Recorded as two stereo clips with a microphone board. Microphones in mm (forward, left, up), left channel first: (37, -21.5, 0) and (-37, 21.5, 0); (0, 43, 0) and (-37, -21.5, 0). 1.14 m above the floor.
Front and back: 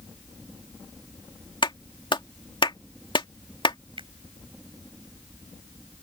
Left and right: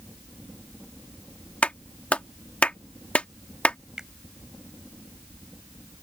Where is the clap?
10° right.